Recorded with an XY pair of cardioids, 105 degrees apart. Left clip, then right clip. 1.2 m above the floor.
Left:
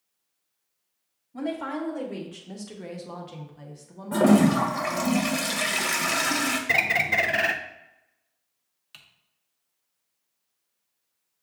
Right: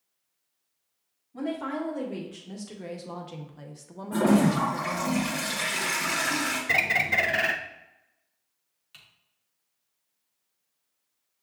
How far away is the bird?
About 0.5 m.